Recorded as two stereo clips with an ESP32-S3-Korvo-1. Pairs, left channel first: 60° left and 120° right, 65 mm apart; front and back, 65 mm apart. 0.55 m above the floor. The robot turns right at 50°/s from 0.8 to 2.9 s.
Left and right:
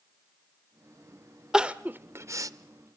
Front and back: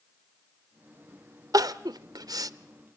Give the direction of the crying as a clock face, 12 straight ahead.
7 o'clock.